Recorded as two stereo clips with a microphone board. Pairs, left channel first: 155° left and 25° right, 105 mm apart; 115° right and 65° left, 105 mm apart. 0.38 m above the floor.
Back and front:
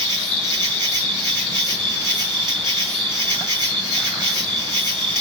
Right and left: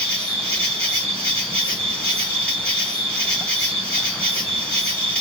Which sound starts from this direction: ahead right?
An insect, at 0.0 s.